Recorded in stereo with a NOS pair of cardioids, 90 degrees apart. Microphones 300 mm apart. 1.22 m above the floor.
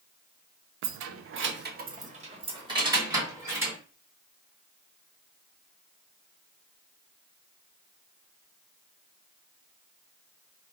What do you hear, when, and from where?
0.8 s keys jangling: 65° right, 0.6 m; by 3.8 s 5° right, 1.7 m